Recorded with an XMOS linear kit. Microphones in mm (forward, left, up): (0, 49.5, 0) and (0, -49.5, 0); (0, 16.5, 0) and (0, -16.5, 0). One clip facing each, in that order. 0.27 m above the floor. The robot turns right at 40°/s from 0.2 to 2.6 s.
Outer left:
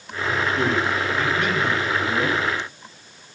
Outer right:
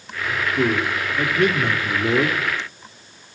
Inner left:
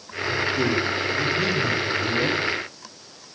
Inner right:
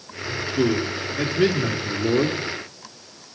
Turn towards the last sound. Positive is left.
turn(degrees=-90)